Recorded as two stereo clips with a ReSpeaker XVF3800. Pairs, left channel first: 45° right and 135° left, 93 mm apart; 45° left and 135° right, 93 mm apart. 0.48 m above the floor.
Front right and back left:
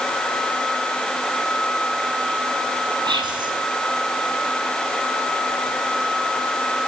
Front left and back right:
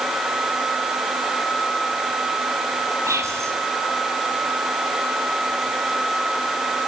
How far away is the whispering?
About 6 m.